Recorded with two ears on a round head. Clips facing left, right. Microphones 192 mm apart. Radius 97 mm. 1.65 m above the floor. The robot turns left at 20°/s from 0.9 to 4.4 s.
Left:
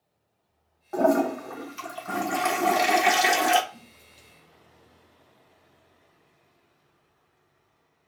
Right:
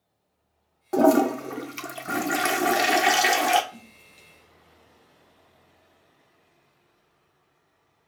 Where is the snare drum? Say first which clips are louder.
Right 3 dB; 45° right (ahead or behind), 1.7 m.